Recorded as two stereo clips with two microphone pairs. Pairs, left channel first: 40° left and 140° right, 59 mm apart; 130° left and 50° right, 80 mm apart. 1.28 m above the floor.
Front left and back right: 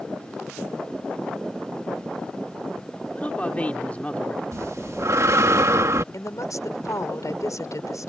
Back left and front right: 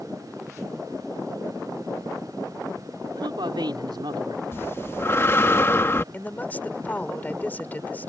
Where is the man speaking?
30° right.